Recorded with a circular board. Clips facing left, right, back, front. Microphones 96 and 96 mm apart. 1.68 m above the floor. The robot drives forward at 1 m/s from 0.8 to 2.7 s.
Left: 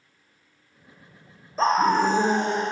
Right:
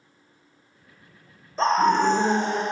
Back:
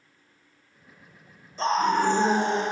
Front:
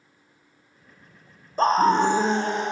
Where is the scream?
5° left, 0.9 m; by 2.6 s 175° left, 0.7 m.